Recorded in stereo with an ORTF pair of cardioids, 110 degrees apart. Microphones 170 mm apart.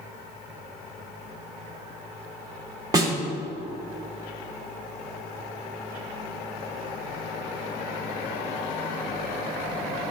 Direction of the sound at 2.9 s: 20° right.